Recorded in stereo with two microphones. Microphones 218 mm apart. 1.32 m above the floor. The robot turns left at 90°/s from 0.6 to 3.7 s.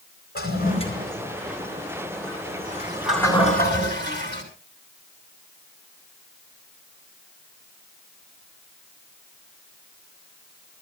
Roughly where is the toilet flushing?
Left.